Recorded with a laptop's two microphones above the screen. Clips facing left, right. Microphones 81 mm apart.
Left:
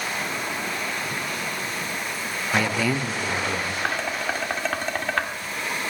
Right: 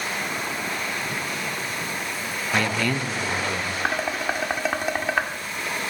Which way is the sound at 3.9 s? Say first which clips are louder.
Right 3 dB; 10° right (ahead or behind).